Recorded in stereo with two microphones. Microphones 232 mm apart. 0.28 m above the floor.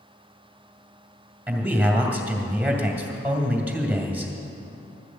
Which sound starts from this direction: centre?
A man speaking, at 1.5 s.